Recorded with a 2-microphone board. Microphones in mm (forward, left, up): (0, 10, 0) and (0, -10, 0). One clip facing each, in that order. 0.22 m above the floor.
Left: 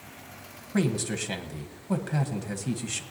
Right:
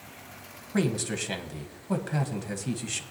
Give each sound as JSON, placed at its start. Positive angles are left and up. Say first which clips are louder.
{"t": 0.7, "sound": "a man speaking", "louder": "even", "side_deg": -5, "distance_m": 1.1}